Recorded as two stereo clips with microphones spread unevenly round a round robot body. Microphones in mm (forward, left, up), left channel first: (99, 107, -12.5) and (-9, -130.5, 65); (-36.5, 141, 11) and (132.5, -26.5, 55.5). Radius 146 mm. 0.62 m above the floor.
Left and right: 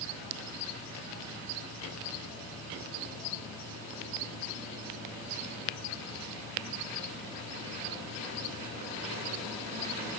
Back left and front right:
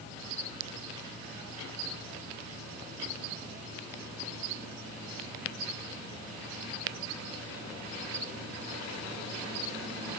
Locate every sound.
Only background noise.